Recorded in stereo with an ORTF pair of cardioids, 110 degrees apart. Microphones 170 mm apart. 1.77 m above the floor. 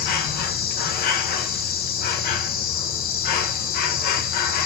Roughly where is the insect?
Left.